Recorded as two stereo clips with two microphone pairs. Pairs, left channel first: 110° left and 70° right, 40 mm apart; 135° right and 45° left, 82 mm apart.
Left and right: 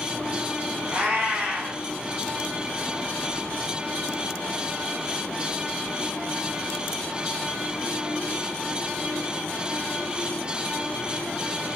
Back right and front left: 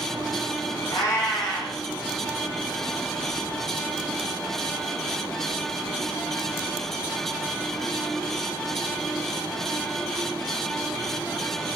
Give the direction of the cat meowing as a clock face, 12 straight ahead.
3 o'clock.